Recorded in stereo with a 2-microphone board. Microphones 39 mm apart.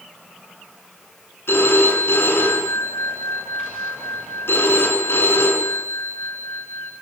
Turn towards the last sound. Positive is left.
turn(degrees=90)